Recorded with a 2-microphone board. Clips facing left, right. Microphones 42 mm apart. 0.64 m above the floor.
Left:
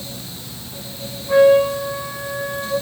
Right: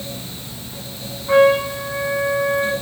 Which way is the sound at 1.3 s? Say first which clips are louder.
Left 2 dB; 55° right (ahead or behind).